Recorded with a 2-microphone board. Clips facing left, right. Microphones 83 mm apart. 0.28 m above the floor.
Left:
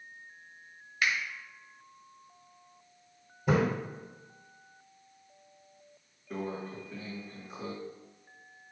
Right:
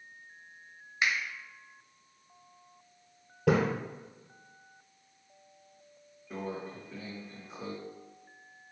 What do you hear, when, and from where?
1.0 s a finger snap: 25° right (ahead or behind), 0.7 m
3.5 s a splash: 80° right, 1.3 m
6.3 s a microwave: 5° right (ahead or behind), 1.7 m